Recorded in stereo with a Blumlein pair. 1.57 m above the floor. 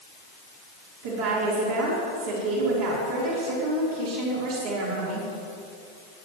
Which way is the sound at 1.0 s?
50° right.